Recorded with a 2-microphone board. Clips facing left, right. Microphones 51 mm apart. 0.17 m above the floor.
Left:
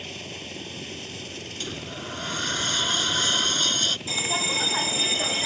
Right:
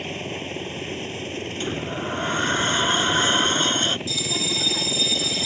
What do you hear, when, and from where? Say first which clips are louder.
0.0 s a helicopter: right 7 dB; 30° right (ahead or behind)
1.6 s a sliding door: right 7 dB; 30° right (ahead or behind)
4.1 s a bell: even; 35° left (ahead or behind)